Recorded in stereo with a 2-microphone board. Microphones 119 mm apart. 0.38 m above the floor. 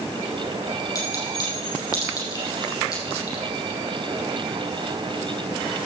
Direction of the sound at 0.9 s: 30° left (ahead or behind).